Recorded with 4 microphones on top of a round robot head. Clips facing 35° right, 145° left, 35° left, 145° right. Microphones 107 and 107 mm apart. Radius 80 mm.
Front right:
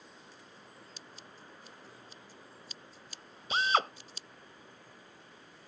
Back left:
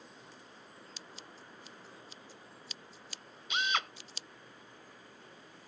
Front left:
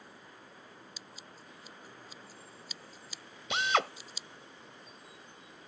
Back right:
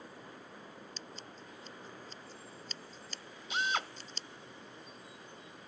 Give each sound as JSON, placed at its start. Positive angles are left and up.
{"t": 1.0, "sound": "scissors", "azimuth_deg": 120}
{"t": 3.5, "sound": "a drill", "azimuth_deg": 20}